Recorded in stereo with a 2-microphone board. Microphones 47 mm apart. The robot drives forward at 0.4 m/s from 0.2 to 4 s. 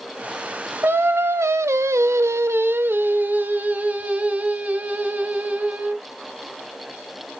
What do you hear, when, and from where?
0.8 s singing: 50° right (ahead or behind), 0.7 m; by 6.0 s 30° right (ahead or behind), 1.0 m